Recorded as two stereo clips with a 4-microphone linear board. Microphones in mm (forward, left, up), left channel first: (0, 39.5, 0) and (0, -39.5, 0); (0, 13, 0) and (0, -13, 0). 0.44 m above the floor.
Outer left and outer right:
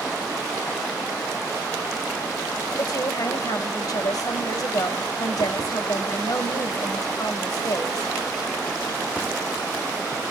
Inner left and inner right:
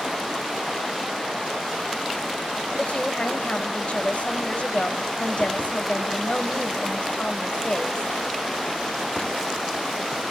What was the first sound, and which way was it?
A woman speaking, 60° left (ahead or behind).